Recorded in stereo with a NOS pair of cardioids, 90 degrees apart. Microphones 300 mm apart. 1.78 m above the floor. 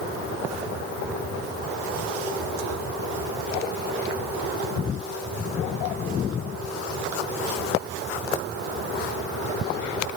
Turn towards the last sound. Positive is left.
No sound to turn to.